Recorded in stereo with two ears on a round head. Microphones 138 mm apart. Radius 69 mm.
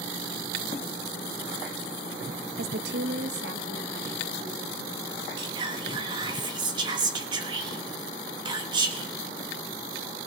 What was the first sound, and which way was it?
A woman speaking, 65° right (ahead or behind).